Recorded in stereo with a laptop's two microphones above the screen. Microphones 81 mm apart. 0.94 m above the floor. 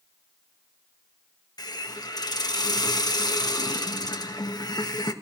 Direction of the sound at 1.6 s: 55° left (ahead or behind).